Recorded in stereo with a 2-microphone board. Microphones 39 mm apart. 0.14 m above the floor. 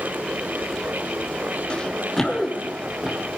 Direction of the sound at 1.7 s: 25° left (ahead or behind).